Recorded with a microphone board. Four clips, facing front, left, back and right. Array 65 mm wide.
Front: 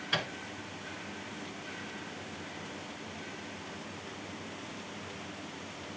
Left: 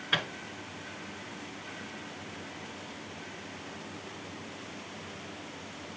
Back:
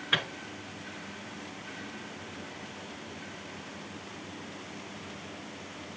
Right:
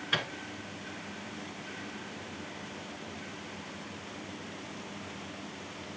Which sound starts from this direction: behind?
A microwave, at 0.1 s.